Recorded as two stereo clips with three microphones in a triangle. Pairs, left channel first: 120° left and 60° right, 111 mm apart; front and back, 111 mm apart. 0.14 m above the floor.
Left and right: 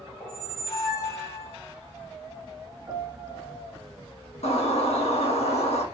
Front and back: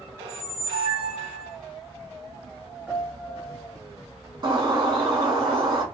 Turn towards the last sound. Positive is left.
turn(degrees=135)